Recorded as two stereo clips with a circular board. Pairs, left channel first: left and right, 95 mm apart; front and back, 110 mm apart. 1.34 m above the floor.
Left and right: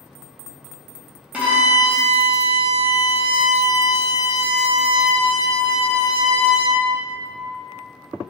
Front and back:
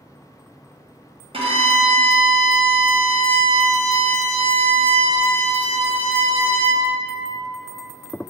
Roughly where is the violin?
Behind.